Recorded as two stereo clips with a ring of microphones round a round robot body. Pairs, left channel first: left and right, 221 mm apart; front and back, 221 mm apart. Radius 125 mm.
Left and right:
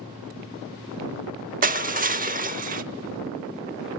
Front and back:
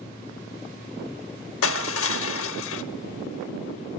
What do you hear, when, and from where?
1.6 s crushing: 40° right, 0.7 m